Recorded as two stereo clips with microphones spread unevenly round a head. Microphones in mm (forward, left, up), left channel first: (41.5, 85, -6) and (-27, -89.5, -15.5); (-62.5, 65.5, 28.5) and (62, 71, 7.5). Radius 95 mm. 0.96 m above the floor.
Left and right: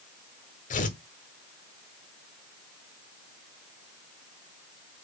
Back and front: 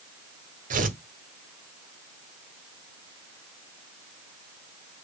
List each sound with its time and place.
0.7 s tearing paper: 20° left, 1.8 m